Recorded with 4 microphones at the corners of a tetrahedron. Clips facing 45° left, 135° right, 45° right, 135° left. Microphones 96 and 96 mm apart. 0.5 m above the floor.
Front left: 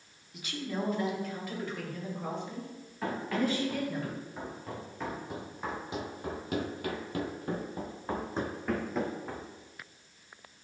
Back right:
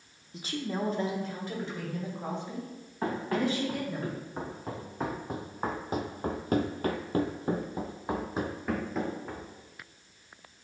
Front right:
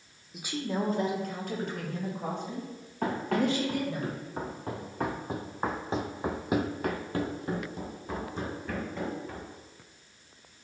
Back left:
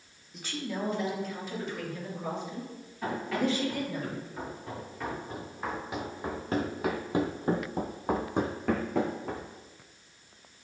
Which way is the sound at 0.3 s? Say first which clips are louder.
Back right 2 dB, front right 3 dB; 130° right.